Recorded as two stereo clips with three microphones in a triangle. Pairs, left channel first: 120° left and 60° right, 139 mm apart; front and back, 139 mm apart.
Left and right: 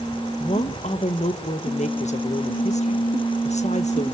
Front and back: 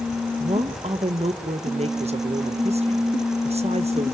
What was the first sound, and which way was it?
A woman speaking, 145° left.